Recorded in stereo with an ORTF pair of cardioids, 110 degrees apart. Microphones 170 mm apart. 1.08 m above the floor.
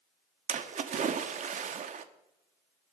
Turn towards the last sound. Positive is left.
turn(degrees=-45)